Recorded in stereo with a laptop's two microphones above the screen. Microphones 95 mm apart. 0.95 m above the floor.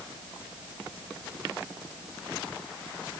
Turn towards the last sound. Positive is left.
No sound to turn to.